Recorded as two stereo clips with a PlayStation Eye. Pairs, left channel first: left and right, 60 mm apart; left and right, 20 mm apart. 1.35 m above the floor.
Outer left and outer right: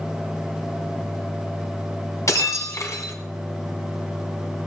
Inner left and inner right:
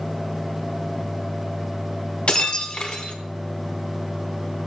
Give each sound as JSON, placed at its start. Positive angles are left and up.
{"t": 2.3, "sound": "breaking glass", "side_deg": 55, "distance_m": 2.0}